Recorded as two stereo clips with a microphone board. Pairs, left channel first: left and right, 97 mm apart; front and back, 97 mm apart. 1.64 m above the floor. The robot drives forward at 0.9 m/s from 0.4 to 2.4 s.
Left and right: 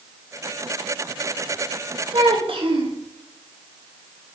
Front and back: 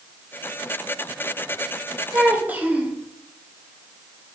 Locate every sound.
2.1 s a child speaking: 100° right, 2 m; by 3.0 s 110° right, 2 m